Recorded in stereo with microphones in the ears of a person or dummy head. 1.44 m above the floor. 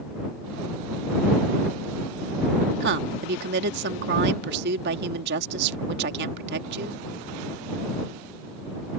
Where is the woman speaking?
60° right (ahead or behind).